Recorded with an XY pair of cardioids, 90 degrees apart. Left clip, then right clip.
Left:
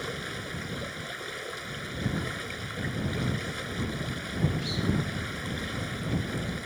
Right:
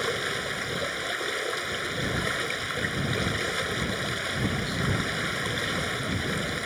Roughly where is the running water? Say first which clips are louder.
Right 7 dB; ahead right.